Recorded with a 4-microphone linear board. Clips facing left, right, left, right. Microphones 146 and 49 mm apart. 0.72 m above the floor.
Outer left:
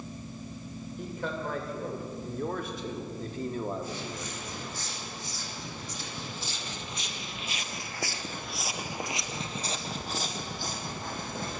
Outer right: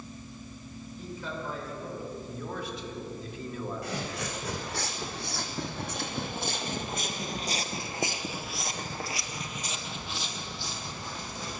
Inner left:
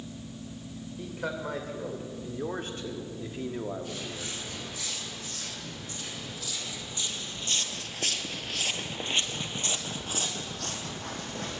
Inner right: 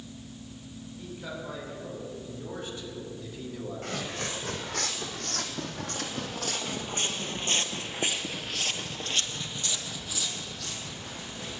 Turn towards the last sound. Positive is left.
turn(degrees=55)  # may be behind; listen again after turning